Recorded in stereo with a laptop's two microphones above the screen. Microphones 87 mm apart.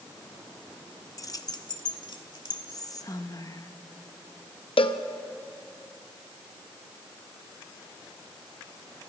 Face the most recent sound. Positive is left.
turn(degrees=80)